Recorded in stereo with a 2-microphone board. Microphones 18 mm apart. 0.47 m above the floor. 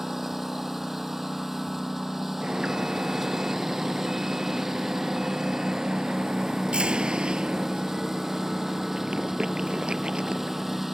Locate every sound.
0.0 s a lawn mower: 20° right (ahead or behind)
2.4 s an alarm: 70° right (ahead or behind)